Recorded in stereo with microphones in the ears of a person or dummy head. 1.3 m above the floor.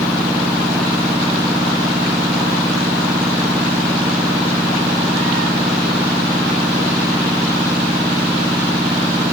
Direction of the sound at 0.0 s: 15° right (ahead or behind).